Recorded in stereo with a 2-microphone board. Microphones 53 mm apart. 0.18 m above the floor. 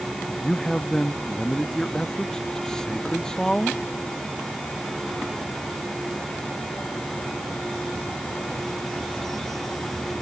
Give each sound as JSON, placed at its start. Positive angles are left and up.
{"t": 0.4, "sound": "a man speaking", "side_deg": 10}